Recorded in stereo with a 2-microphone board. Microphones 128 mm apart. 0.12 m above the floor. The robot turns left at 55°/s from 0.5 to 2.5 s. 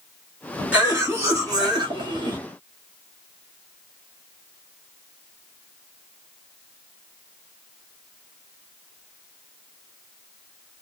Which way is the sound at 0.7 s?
20° right.